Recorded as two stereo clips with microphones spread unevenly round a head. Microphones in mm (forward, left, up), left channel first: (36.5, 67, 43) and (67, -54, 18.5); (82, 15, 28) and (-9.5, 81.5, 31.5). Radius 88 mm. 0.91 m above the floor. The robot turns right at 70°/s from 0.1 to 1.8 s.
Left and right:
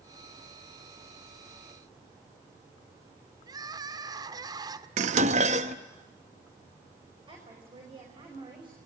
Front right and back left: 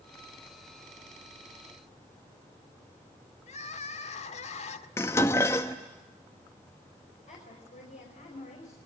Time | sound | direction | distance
3.5 | crying | 15° right | 1.4 m
5.0 | dishes clattering | 110° right | 0.8 m
7.3 | a woman speaking | 25° right | 5.5 m